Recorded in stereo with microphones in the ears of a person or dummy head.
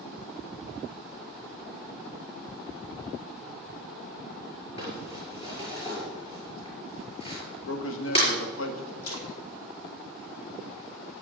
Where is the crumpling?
40° left (ahead or behind), 5 m.